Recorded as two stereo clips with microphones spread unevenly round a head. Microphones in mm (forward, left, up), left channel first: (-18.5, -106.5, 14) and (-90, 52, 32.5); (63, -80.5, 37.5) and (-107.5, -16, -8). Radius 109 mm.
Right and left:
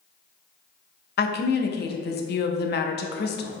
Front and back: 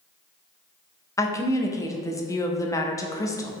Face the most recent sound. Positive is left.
turn(degrees=-95)